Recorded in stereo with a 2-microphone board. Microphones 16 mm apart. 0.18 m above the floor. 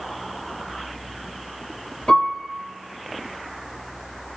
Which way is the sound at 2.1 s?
75° left (ahead or behind).